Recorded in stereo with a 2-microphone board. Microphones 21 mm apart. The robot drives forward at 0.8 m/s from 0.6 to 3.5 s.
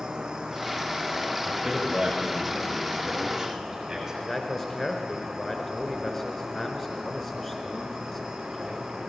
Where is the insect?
35° right (ahead or behind), 2.5 m; by 9.1 s 20° right (ahead or behind), 4.5 m.